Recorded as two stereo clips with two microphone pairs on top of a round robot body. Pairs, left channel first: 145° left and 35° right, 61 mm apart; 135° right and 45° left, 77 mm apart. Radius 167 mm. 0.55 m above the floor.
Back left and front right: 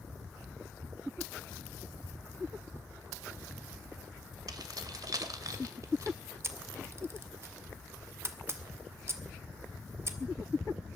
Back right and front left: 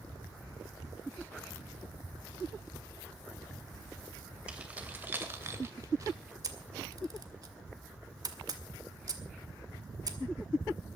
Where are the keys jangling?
35° right, 2.5 m; by 6.2 s straight ahead, 2.5 m.